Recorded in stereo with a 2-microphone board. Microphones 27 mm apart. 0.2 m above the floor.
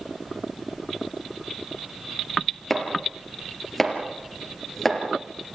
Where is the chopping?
Centre (ahead or behind), 5 m.